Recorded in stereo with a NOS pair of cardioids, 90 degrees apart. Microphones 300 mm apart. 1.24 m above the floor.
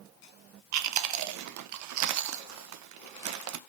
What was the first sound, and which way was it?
Chewing, 70° right.